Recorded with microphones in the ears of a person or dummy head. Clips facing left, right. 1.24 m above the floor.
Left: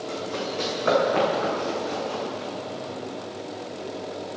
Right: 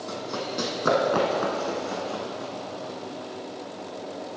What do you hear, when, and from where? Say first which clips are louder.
0.1 s running footsteps: left 1 dB; 55° right (ahead or behind), 2.5 m